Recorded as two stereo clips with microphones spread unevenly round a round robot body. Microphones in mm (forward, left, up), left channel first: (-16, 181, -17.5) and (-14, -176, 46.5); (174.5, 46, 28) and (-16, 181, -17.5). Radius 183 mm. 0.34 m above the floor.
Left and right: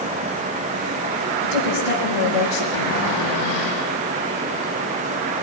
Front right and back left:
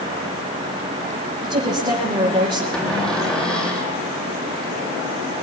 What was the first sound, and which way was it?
A woman speaking, 75° left.